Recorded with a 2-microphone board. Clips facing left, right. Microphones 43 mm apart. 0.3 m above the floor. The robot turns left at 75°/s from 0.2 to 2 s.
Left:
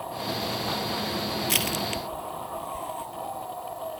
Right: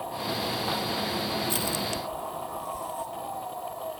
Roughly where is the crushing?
Left.